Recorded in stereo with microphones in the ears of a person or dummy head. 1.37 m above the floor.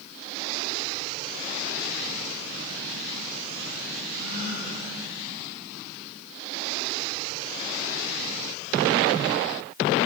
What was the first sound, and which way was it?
A gasp, 55° left (ahead or behind).